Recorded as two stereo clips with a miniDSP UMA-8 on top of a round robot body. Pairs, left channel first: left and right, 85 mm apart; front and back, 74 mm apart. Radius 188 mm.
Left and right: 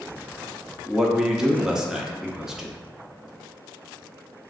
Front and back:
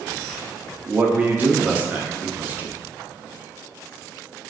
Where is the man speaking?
165° right, 0.7 m.